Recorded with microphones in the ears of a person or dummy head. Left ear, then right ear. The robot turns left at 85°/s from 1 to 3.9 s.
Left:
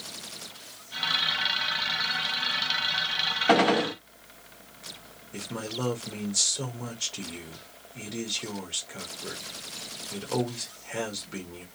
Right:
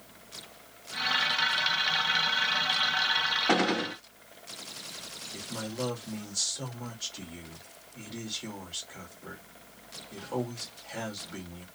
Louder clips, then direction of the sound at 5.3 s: Left 4 dB; 75° left (ahead or behind).